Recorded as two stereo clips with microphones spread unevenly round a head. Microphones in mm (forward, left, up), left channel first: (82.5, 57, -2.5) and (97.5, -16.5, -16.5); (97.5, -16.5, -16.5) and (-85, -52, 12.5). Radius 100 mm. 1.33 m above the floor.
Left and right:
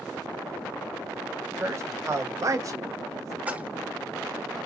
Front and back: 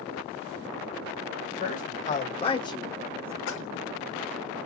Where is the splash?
5° right, 1.2 m.